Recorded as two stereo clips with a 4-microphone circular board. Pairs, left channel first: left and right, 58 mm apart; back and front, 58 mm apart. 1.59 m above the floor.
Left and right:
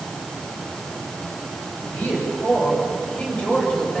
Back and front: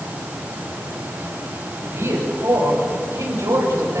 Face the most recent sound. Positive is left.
turn(degrees=15)